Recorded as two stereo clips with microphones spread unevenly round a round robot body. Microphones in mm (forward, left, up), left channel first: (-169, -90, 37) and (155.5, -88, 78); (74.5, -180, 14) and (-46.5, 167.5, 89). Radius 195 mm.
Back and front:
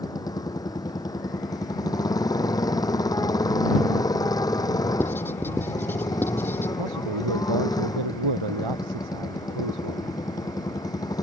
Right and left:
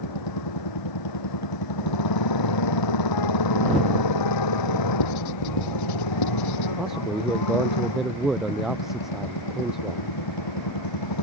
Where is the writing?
95° right.